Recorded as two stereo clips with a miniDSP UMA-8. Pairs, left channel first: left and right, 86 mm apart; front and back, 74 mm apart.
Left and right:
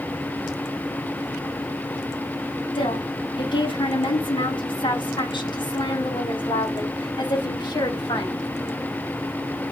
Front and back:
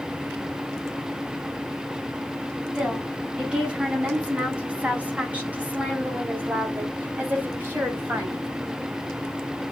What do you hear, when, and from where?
2.8 s a woman speaking: 105° left, 9 m; by 8.5 s 120° left, 5.5 m